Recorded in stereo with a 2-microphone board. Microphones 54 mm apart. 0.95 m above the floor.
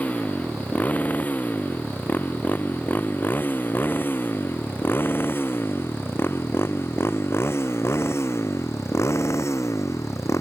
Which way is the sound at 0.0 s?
30° left (ahead or behind).